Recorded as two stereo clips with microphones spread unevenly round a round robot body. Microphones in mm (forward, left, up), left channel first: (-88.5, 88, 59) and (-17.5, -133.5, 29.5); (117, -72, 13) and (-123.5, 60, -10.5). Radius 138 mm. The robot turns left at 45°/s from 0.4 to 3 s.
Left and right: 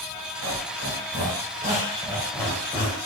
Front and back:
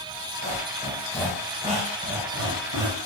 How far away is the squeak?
About 2.0 m.